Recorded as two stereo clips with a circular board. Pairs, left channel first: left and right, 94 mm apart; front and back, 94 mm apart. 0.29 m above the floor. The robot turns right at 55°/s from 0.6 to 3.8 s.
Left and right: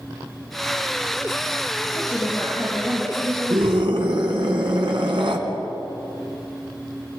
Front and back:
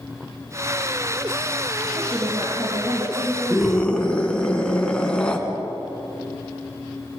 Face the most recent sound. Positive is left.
turn(degrees=-80)